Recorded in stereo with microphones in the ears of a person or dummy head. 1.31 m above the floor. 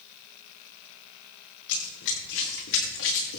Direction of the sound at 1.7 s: 75° left (ahead or behind).